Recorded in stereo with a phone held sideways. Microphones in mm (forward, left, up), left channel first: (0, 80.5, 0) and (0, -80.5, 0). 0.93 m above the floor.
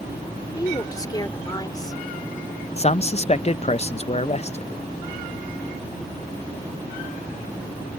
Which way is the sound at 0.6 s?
25° left (ahead or behind).